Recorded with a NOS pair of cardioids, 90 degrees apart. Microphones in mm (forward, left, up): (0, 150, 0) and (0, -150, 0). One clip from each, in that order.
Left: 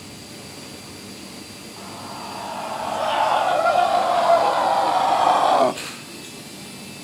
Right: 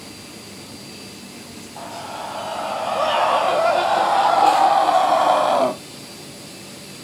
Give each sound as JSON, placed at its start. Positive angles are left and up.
{"t": 1.8, "sound": "a scream", "azimuth_deg": -35, "distance_m": 2.5}